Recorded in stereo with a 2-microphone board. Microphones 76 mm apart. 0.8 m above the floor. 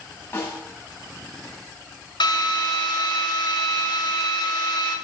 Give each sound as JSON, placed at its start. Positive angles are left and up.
{"t": 0.3, "sound": "a snare drum", "side_deg": 30, "distance_m": 3.5}
{"t": 2.2, "sound": "a drill", "side_deg": 85, "distance_m": 1.6}